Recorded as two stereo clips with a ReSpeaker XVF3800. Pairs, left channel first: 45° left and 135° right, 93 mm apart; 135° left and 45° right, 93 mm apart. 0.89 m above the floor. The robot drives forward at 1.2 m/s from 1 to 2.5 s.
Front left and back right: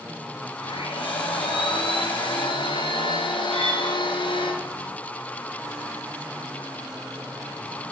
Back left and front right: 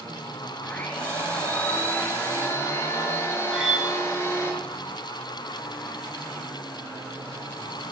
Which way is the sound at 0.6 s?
60° left.